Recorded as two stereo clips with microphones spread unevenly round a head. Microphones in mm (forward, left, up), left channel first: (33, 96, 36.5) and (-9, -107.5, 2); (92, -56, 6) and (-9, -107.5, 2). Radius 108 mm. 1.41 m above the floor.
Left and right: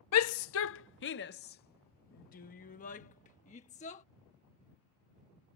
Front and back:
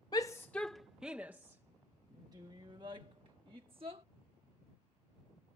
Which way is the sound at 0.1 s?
100° left.